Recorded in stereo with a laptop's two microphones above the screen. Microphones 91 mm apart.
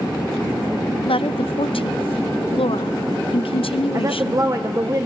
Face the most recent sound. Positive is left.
turn(degrees=-40)  # may be behind; listen again after turning